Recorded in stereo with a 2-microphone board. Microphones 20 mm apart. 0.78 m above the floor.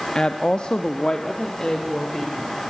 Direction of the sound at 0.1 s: 40° left (ahead or behind).